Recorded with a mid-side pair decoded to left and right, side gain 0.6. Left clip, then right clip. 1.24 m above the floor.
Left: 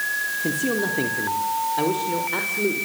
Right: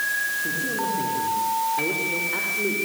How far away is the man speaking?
About 4 m.